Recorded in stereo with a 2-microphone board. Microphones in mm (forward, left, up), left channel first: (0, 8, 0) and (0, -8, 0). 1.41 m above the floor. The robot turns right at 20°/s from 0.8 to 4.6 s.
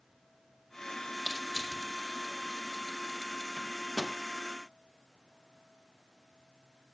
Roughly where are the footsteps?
I don't hear footsteps.